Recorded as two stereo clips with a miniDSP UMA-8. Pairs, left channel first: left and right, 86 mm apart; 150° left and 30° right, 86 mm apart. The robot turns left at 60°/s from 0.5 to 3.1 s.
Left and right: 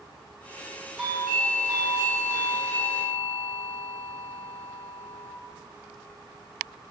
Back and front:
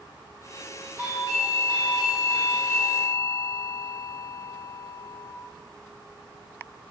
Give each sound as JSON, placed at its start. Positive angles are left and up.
{"t": 1.0, "sound": "a doorbell", "azimuth_deg": -5, "distance_m": 1.6}